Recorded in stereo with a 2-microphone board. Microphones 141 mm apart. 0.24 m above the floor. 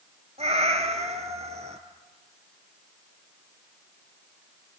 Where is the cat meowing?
55° right (ahead or behind), 2 m.